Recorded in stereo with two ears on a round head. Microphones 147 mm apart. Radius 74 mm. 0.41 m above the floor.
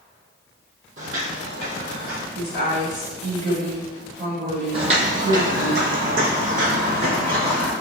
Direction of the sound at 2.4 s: 45° right (ahead or behind).